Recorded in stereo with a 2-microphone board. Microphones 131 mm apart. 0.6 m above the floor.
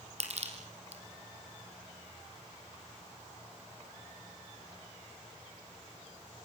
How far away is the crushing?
About 3.5 m.